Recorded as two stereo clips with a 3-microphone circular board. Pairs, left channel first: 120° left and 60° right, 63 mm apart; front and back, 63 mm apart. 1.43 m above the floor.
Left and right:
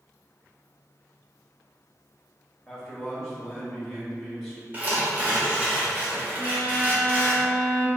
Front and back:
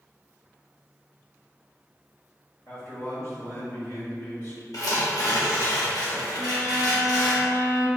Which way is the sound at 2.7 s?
30° left.